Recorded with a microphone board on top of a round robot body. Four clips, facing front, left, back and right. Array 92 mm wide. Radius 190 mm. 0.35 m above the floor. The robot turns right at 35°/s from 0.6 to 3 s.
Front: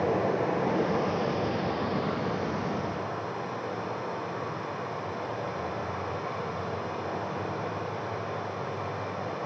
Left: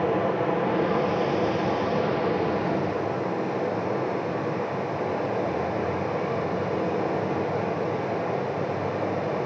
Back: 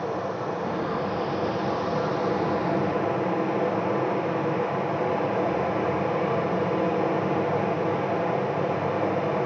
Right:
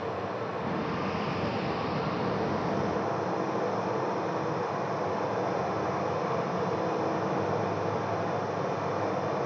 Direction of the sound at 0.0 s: 60° left.